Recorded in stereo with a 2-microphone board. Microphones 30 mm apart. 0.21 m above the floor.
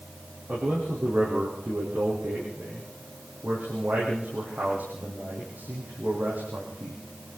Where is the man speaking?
75° right (ahead or behind), 7 m.